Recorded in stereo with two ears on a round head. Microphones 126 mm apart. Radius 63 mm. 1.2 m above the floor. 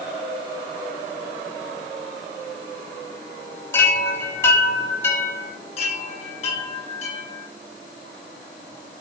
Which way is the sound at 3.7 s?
20° left (ahead or behind).